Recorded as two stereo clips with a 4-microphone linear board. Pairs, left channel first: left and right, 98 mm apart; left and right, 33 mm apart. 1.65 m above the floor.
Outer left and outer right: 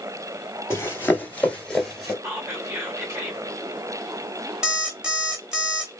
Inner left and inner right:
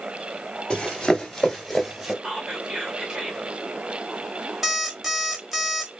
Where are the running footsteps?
25° left (ahead or behind), 1.9 m; by 2.1 s centre (ahead or behind), 1.9 m.